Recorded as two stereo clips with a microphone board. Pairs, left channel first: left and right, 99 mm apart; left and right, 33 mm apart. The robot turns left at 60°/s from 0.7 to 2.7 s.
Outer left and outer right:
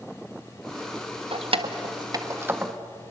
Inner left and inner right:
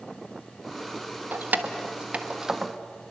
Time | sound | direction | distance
1.3 | keys jangling | 75° right (ahead or behind) | 1.3 m